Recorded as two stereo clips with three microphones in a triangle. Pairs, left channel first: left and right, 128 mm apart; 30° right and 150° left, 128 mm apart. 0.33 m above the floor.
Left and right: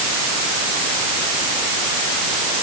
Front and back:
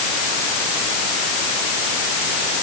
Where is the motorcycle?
No motorcycle in this recording.